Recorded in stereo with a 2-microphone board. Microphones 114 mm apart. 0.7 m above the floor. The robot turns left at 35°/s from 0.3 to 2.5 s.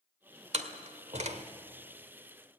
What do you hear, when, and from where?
0.5 s a door slam: 70° right (ahead or behind), 1.6 m